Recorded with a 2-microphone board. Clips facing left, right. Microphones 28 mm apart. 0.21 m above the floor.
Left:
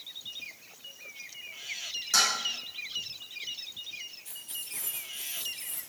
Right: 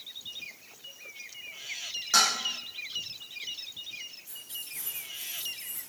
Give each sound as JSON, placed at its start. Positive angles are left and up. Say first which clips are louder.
{"t": 2.1, "sound": "dishes clattering", "louder": "right 2 dB", "side_deg": -20, "distance_m": 6.0}
{"t": 4.2, "sound": "keys jangling", "louder": "even", "side_deg": 75, "distance_m": 3.5}